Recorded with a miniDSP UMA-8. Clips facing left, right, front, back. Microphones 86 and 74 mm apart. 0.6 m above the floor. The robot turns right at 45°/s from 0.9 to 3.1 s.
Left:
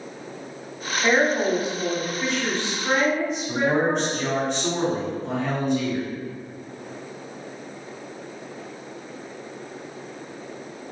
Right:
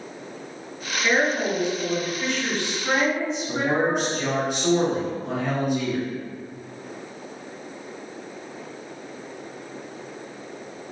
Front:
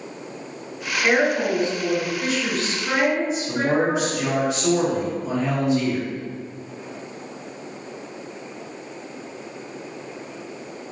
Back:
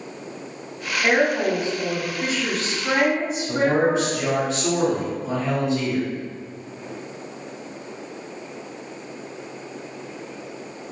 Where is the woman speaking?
115° left, 1.5 m; by 4.1 s 150° right, 1.5 m.